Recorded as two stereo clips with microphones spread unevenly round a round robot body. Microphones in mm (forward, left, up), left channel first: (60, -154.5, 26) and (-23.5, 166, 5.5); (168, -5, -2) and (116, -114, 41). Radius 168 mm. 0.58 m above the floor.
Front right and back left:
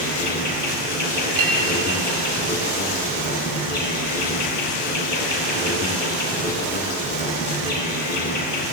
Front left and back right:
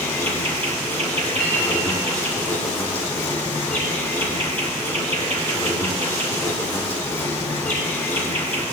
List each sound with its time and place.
0.0 s an insect: 15° right, 1.7 m
1.4 s a clink: 135° left, 2.5 m